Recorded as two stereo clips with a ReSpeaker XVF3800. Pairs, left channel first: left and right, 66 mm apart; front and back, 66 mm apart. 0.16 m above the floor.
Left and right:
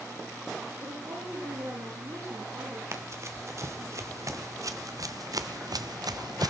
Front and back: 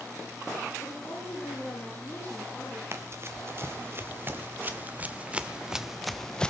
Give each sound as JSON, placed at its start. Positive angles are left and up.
{"t": 0.8, "sound": "a woman speaking", "azimuth_deg": -55, "distance_m": 7.0}
{"t": 2.9, "sound": "running footsteps", "azimuth_deg": -135, "distance_m": 2.5}